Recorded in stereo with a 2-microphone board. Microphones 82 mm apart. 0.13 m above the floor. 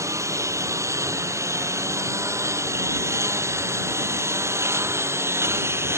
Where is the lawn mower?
35° right (ahead or behind); by 6.0 s 30° right (ahead or behind).